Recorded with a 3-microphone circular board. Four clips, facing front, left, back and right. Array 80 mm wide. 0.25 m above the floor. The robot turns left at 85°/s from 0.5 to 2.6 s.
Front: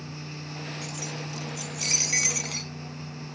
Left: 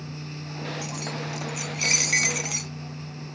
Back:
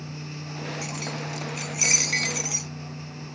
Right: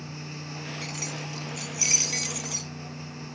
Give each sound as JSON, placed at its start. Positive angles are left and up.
{"t": 0.8, "sound": "keys jangling", "azimuth_deg": -135}